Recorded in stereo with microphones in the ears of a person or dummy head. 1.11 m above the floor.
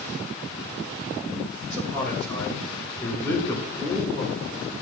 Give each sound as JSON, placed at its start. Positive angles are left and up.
{"t": 1.7, "sound": "a man speaking", "side_deg": 15, "distance_m": 6.0}